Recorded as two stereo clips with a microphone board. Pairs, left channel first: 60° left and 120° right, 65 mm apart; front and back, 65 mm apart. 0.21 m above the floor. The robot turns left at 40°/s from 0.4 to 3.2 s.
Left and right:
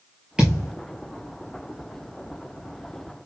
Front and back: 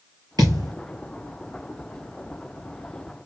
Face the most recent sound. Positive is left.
turn(degrees=55)